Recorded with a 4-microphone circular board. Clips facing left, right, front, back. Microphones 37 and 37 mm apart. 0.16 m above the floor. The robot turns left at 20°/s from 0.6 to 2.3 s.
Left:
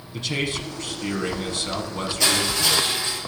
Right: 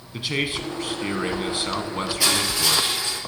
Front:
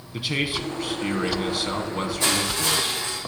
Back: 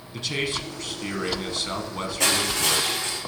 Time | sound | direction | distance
0.1 | a man speaking | 50° right | 1.0 m
2.2 | crushing | 175° right | 4 m